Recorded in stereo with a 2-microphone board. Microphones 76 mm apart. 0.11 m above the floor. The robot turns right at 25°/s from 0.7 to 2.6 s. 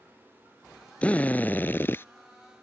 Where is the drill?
20° left (ahead or behind); by 2.0 s 30° left (ahead or behind).